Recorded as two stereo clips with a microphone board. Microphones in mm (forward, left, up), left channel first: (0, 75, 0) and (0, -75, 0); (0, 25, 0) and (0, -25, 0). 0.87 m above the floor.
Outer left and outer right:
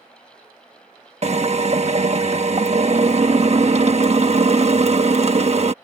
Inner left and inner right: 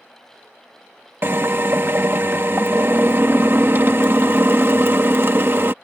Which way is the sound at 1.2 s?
45° right (ahead or behind).